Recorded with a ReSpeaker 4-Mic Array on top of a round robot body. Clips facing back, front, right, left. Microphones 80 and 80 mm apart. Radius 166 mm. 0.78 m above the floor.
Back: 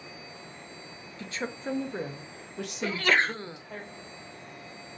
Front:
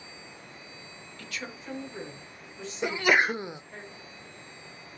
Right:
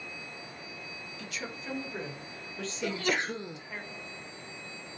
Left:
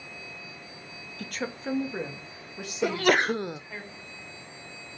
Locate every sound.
1.2 s a woman speaking: 120° left, 1.1 m; by 3.8 s straight behind, 2 m
2.8 s a sneeze: 75° left, 0.5 m